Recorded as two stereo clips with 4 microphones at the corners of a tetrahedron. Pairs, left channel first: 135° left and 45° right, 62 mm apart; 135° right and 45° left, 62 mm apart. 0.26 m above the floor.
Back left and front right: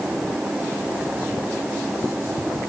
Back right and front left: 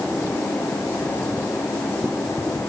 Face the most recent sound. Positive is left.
No sound to turn to.